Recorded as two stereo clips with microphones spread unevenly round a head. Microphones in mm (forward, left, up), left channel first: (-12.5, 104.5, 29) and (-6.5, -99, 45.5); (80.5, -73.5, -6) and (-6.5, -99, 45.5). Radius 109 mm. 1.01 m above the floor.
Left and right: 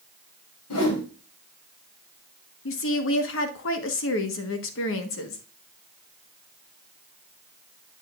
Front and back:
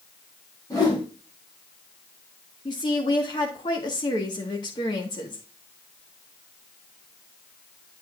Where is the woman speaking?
65° left, 1.2 m.